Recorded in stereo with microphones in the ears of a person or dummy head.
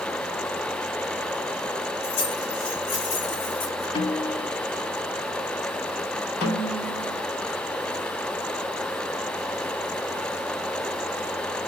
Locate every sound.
2.0 s keys jangling: 55° left (ahead or behind), 3.5 m; by 3.9 s 45° left (ahead or behind), 4.5 m
4.0 s a snare drum: 20° left (ahead or behind), 0.8 m
6.4 s a snare drum: 60° left (ahead or behind), 2 m